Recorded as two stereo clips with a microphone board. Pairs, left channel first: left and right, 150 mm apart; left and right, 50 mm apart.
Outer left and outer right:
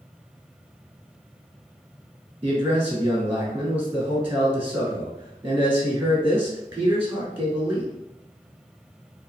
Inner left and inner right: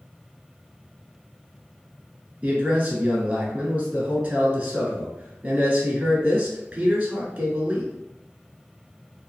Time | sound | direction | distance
2.4 | a man speaking | 15° right (ahead or behind) | 1.1 m